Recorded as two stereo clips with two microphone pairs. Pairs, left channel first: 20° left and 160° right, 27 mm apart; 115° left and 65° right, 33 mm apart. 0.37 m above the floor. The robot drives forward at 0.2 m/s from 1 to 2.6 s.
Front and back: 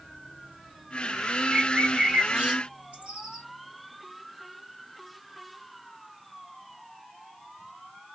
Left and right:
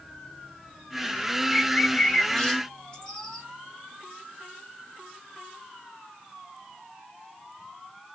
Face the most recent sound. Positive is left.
turn(degrees=180)